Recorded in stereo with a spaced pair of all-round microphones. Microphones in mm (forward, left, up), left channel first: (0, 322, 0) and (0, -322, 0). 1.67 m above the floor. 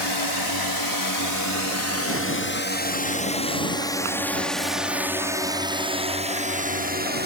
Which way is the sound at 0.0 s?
40° left (ahead or behind).